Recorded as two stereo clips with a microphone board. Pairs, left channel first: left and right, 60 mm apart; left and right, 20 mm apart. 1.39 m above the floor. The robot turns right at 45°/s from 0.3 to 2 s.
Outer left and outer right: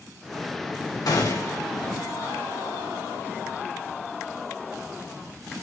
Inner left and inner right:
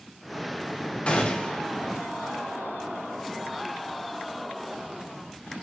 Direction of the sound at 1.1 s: 75° left (ahead or behind).